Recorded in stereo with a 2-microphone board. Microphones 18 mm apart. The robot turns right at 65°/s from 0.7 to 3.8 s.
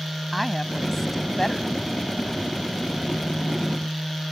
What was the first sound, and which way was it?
A woman speaking, centre (ahead or behind).